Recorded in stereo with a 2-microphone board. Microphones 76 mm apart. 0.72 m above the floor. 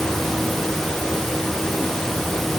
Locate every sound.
Only background noise.